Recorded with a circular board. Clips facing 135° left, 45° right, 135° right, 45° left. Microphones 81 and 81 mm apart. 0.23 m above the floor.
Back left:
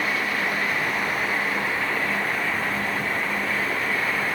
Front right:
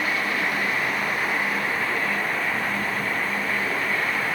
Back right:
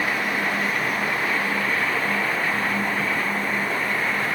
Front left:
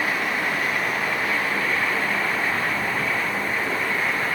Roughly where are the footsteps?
No footsteps in this recording.